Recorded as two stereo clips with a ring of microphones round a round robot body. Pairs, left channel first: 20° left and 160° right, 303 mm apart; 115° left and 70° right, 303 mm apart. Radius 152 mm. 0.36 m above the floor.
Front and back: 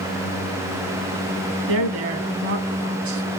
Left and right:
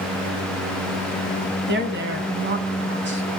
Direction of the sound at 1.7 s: 120° right.